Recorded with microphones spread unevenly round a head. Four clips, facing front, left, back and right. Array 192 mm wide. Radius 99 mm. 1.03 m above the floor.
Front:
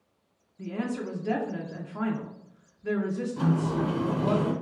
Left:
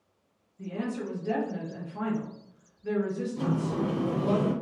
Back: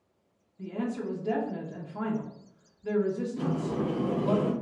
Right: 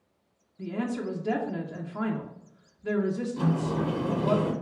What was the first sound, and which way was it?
A woman speaking, 40° right.